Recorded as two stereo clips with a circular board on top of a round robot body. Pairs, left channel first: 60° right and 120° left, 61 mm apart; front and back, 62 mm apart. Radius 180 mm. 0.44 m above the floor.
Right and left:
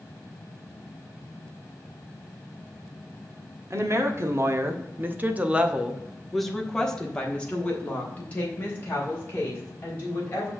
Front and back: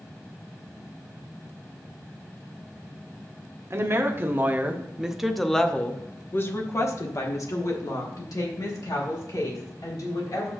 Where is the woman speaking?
145° left, 1.6 m; by 10.5 s 5° right, 3.5 m.